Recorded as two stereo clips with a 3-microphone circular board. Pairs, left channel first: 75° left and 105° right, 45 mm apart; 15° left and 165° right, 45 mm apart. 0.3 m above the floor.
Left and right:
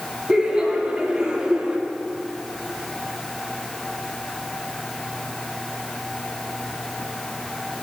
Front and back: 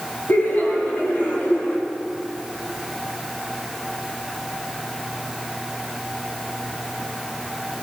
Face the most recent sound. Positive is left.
turn(degrees=-35)